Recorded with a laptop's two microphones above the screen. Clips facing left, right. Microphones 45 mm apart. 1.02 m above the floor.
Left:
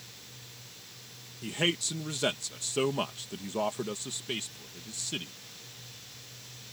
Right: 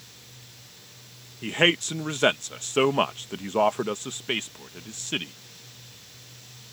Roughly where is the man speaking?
Right.